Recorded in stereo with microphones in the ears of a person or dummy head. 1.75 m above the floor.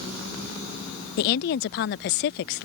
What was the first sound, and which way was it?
A woman speaking, 60° left (ahead or behind).